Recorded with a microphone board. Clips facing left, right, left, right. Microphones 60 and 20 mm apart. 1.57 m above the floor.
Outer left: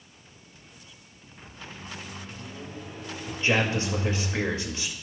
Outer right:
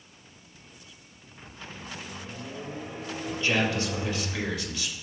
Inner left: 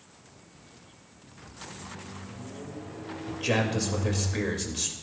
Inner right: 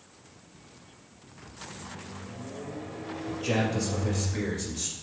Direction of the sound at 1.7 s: 45° right (ahead or behind).